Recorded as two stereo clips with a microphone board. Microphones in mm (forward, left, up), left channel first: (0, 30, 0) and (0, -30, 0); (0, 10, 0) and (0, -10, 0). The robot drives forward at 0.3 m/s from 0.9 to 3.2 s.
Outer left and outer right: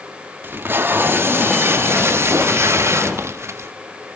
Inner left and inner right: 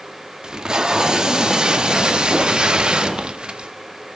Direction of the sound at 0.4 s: 35° right (ahead or behind).